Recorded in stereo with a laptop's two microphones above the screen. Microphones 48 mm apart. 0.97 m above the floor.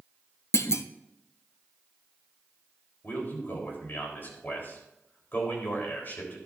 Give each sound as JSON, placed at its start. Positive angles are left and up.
{"t": 0.5, "sound": "a clunk", "side_deg": 65, "distance_m": 0.5}
{"t": 3.0, "sound": "a man speaking", "side_deg": 45, "distance_m": 4.0}